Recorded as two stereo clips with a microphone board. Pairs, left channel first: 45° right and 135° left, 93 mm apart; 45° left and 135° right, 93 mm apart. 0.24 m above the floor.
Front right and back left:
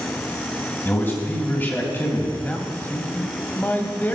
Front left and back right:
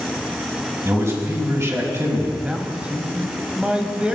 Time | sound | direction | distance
0.8 | a man speaking | 95° right | 1.9 m
2.4 | a man speaking | 75° right | 1.0 m